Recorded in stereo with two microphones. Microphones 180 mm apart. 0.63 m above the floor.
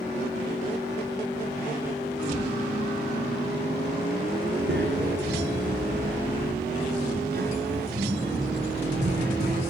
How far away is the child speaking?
About 6 m.